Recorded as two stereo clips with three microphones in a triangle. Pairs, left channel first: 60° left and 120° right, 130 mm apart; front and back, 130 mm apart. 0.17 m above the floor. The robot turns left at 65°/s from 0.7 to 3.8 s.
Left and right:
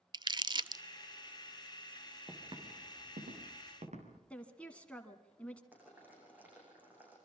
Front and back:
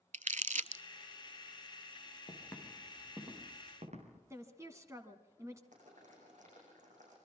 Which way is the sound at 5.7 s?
165° left.